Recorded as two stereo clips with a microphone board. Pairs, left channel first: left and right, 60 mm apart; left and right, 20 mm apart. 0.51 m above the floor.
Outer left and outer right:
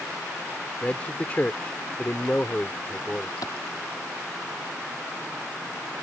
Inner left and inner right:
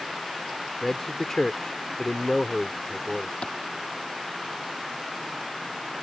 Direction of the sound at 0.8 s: 25° left (ahead or behind).